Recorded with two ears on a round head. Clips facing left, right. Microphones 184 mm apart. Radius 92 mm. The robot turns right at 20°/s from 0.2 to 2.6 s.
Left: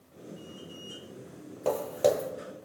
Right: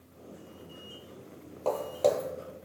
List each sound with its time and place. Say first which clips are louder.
1.6 s footsteps: left 1 dB; 15° left (ahead or behind), 0.8 m; by 2.3 s 10° left (ahead or behind), 0.8 m